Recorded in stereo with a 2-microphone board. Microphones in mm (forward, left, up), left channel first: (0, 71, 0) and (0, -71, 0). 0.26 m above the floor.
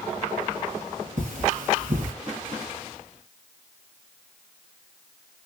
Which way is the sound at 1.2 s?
65° right (ahead or behind).